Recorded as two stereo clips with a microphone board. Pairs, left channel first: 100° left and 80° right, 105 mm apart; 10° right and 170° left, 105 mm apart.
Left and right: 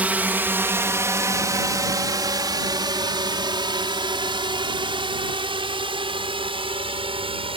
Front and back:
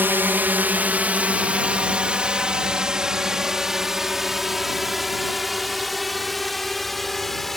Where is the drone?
140° right; by 7.6 s 100° right.